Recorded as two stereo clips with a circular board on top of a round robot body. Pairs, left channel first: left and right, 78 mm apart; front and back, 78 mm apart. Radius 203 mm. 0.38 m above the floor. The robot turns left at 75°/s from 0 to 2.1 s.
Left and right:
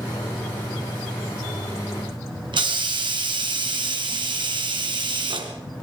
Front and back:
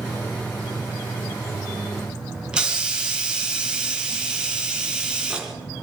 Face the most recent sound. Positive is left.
turn(degrees=-100)